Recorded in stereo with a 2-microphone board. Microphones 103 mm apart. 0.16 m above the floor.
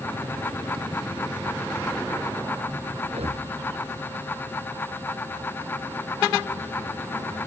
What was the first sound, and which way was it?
Breathing, 85° right.